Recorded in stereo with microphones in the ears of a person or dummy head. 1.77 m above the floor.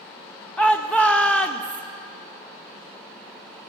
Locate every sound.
0.6 s a shout: 10° left (ahead or behind), 0.5 m